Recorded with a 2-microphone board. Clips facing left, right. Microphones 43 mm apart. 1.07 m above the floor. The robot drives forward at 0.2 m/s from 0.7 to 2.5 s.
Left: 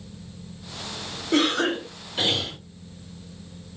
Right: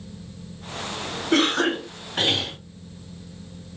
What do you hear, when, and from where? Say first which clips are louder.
1.3 s a cough: right 1 dB; 60° right (ahead or behind), 3 m